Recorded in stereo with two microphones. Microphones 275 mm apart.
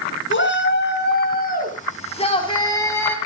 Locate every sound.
0.3 s a shout: 45° left (ahead or behind), 5 m; by 3.2 s 5° left (ahead or behind), 3.5 m